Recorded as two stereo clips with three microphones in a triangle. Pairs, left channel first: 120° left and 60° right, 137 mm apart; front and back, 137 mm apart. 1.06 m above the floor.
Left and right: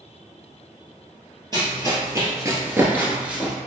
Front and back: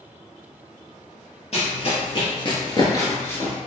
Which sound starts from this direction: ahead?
Running footsteps, at 1.5 s.